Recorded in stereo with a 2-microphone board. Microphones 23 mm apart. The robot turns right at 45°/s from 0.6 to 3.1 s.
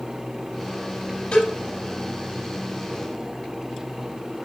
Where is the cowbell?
60° left (ahead or behind), 9 m; by 1.5 s 70° left (ahead or behind), 9 m.